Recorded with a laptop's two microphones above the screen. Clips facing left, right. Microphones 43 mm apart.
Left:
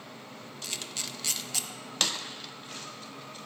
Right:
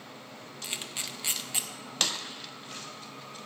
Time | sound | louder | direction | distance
0.6 | a camera shutter | right 1 dB | 20° right (ahead or behind) | 0.8 m